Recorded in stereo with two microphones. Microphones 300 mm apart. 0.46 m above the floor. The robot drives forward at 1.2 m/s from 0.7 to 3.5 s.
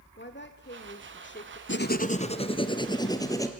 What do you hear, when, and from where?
0.2 s a woman speaking: 35° left (ahead or behind), 1.6 m
1.7 s writing: 40° left (ahead or behind), 0.8 m; by 3.5 s 10° left (ahead or behind), 3 m